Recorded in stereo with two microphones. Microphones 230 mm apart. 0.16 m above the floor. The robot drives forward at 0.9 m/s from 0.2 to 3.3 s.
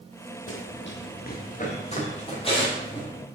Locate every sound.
0.5 s running footsteps: 75° left (ahead or behind), 1.2 m; by 3.1 s 20° left (ahead or behind), 4 m